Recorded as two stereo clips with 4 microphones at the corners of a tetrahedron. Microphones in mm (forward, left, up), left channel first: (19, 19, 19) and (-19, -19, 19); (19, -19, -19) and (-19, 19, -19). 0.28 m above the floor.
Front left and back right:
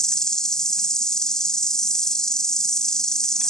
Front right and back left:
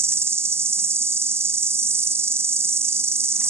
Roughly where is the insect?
Behind left.